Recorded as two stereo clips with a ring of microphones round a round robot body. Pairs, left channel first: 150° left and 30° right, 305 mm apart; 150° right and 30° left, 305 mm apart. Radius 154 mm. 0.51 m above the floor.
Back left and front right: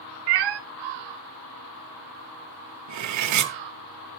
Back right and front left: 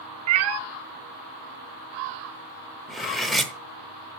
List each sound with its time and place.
0.3 s a cat meowing: 15° right, 0.7 m
2.9 s cutlery clinking: 60° right, 0.9 m